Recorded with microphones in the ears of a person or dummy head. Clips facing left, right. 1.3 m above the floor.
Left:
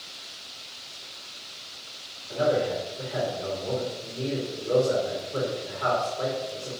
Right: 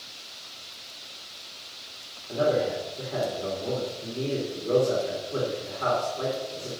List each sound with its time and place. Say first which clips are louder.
2.3 s a man speaking: even; 40° right (ahead or behind), 2 m